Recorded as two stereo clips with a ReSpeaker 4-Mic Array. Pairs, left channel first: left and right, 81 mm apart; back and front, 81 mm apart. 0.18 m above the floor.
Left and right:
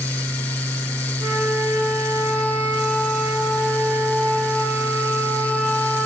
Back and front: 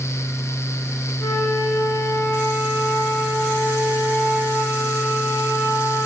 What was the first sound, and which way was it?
A flute, 120° right.